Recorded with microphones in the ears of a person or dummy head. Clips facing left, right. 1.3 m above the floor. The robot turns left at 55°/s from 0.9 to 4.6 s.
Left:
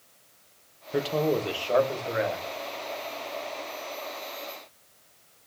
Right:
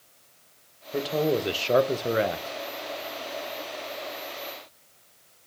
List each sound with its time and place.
0.9 s a man speaking: 10° left, 0.9 m; by 2.5 s 80° right, 0.9 m